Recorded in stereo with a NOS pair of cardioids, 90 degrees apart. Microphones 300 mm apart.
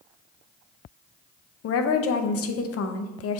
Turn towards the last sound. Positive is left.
turn(degrees=55)